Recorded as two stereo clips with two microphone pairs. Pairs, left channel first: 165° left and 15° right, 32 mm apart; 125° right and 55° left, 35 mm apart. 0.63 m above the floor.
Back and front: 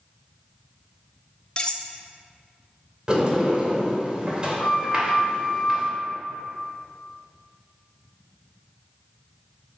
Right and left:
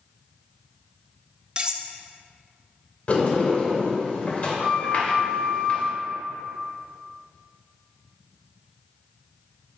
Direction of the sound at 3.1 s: 75° right.